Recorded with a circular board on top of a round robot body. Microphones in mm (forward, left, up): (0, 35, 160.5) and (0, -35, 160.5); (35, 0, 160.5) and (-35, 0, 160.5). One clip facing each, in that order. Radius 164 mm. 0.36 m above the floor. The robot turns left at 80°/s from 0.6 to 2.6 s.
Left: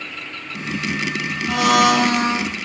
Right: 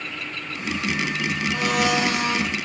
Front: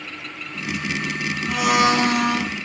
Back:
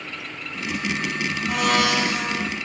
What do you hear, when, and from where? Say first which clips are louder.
1.5 s a blender: left 8 dB, front 3 dB; 95° left, 2 m; by 2.5 s 20° left, 2 m